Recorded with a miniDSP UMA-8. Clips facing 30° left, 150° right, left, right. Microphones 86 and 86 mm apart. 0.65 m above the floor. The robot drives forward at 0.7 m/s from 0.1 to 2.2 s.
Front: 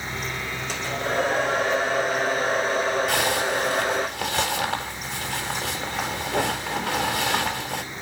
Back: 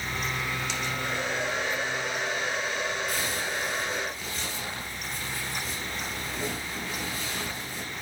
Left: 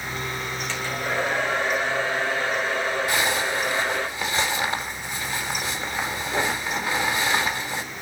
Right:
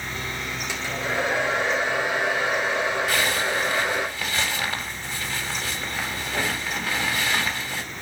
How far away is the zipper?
About 4 m.